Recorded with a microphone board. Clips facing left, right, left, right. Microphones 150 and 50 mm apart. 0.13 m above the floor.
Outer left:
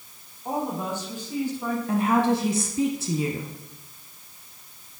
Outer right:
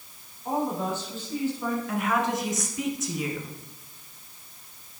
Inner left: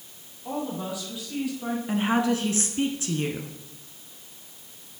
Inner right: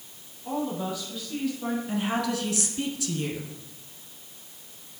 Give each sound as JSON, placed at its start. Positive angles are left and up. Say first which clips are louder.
{"t": 0.5, "sound": "a woman speaking", "louder": "outer right 1 dB, inner right 1 dB", "side_deg": 20, "distance_m": 4.5}
{"t": 1.9, "sound": "a woman speaking", "louder": "outer left 8 dB, inner left 6 dB", "side_deg": 30, "distance_m": 1.2}